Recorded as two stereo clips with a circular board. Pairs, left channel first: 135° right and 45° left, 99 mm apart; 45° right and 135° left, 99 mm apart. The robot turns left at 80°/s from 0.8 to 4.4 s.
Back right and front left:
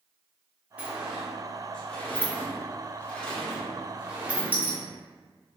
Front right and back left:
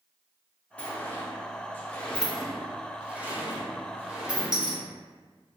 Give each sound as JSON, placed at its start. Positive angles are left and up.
{"t": 0.8, "sound": "a sliding door", "azimuth_deg": 0, "distance_m": 0.5}